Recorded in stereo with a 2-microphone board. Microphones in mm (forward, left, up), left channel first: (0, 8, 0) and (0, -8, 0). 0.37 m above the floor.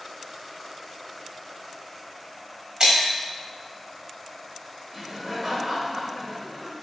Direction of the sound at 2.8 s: 55° right (ahead or behind).